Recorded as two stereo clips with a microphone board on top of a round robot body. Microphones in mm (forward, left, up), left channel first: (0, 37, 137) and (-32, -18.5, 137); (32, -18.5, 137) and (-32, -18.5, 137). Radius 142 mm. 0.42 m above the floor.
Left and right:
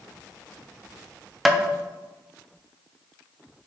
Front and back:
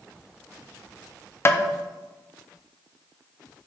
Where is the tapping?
35° right, 0.6 m.